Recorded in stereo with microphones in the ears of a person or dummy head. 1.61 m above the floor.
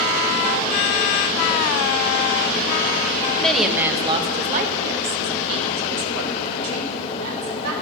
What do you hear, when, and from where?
3.4 s a woman speaking: 10° left (ahead or behind), 0.9 m; by 7.7 s 85° right, 2.5 m